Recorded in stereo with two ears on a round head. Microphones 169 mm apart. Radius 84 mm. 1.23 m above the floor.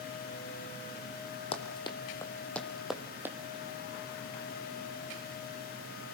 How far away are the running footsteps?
About 2 m.